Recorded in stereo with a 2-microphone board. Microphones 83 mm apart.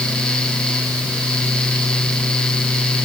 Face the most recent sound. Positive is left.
No sound to turn to.